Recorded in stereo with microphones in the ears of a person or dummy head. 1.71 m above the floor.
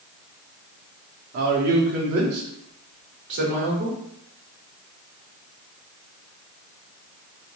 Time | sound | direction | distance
1.3 | a man speaking | 45° right (ahead or behind) | 0.7 m